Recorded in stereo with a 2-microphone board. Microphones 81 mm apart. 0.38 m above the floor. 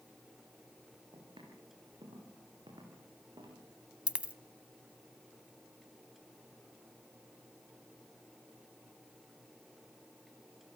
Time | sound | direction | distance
1.1 | footsteps | 75° right (ahead or behind) | 8 m
4.1 | a dropped coin | 15° right (ahead or behind) | 0.7 m